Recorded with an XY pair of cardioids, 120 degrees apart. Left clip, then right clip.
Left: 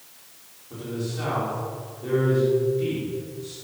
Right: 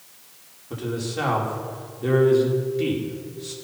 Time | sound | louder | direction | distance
0.7 | a man speaking | right 4 dB | 50° right | 4.5 m